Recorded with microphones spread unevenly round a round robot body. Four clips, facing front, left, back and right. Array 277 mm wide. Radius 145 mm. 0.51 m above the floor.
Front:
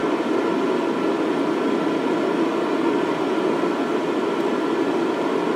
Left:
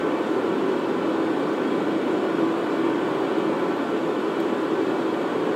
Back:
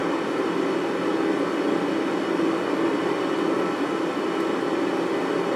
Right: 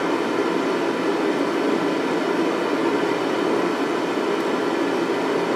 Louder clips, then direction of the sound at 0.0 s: Right 1 dB, front 4 dB; 10° left.